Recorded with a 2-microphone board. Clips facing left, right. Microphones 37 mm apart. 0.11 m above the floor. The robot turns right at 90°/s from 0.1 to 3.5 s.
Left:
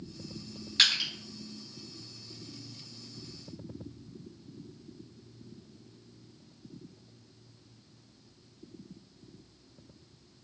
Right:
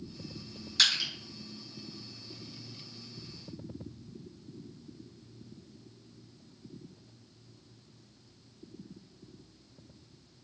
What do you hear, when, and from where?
0.8 s crushing: 30° left (ahead or behind), 1.8 m; by 1.1 s 5° left (ahead or behind), 1.8 m